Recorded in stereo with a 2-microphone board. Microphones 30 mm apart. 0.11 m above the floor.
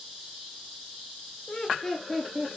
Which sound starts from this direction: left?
Laughter, at 1.5 s.